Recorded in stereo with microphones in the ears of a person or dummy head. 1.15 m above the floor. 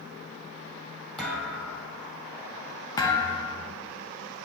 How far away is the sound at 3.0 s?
About 0.8 m.